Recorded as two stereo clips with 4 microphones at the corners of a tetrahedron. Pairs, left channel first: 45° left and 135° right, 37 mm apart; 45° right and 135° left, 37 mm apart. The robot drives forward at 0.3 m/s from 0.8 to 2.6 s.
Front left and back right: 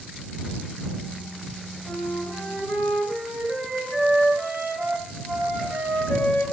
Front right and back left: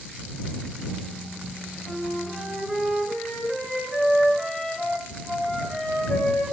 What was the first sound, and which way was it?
A flute, 145° right.